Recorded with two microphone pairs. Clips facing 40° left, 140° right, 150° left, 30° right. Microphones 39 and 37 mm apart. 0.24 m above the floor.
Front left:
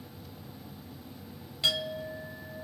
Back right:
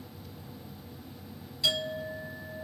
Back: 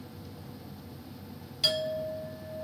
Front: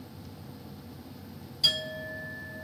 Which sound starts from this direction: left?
A clink, at 1.6 s.